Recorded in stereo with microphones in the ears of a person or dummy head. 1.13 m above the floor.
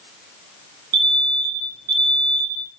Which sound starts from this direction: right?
An alarm, at 0.9 s.